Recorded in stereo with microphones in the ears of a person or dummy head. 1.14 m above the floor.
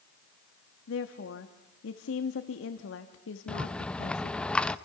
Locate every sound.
0.9 s a woman speaking: 75° left (ahead or behind), 1.4 m
3.5 s a rattle: 5° left (ahead or behind), 0.7 m